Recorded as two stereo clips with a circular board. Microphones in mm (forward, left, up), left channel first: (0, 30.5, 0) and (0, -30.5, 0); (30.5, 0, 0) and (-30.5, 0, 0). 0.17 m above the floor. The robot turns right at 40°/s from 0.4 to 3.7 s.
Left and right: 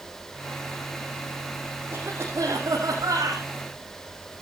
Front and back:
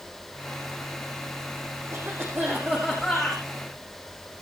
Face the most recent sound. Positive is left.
turn(degrees=-75)